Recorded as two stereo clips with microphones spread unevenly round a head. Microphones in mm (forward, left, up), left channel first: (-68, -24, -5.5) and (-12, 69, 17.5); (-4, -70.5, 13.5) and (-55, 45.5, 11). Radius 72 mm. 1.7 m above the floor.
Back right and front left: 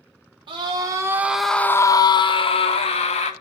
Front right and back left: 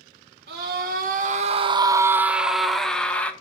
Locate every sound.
0.5 s a scream: 95° left, 1.4 m; by 3.3 s 145° right, 2 m